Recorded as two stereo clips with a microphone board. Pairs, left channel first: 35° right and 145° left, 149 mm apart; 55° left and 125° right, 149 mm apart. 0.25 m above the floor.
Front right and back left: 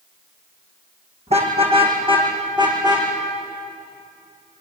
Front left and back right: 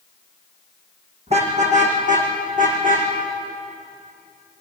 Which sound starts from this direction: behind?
A car horn, at 1.3 s.